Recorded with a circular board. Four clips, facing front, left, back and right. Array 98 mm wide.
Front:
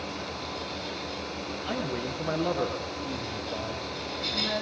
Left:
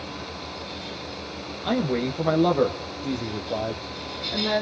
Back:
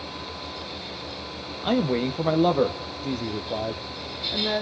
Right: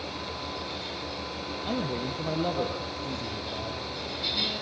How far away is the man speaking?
About 4 m.